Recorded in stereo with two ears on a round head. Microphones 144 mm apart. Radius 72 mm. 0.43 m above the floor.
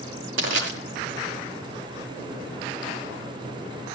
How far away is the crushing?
About 5.5 m.